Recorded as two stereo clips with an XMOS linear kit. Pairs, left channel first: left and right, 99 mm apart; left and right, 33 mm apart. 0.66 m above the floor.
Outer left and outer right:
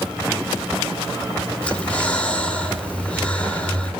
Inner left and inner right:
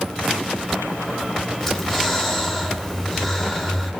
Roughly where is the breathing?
Centre.